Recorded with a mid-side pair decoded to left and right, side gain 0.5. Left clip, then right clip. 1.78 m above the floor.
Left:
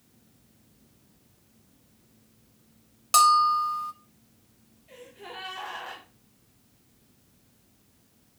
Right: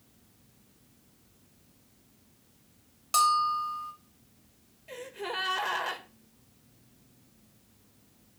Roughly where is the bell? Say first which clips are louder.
Left 6 dB; ahead left.